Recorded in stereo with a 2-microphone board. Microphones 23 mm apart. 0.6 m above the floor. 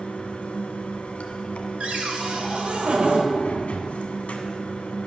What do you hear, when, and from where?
0.0 s running water: 80° left, 1.3 m
1.8 s a cupboard door: 70° right (ahead or behind), 2 m